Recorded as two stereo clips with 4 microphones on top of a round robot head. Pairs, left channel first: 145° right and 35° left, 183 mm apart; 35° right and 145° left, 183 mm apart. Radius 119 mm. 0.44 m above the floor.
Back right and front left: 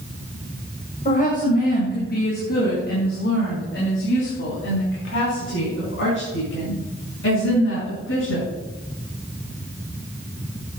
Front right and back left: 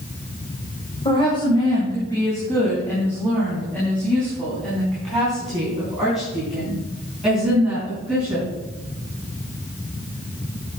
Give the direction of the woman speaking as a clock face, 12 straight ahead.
3 o'clock.